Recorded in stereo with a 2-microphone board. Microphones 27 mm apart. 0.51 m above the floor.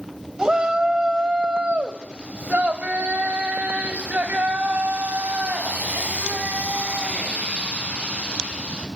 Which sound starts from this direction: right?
A shout, at 0.4 s.